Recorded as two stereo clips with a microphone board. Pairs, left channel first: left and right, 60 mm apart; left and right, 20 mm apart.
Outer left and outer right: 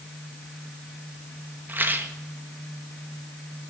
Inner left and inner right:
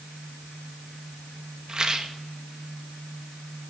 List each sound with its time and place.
1.7 s a rattle: 35° right (ahead or behind), 1.0 m